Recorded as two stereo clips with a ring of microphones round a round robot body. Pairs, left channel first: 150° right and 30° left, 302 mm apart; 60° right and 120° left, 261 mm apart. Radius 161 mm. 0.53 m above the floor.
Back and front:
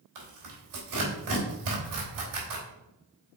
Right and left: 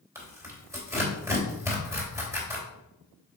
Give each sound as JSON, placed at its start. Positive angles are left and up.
{"t": 0.1, "sound": "tearing paper", "azimuth_deg": 40, "distance_m": 3.0}